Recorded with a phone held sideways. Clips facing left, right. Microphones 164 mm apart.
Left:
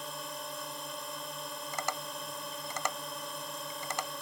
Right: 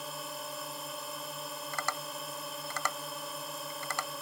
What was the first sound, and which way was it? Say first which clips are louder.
A drone: even; centre (ahead or behind).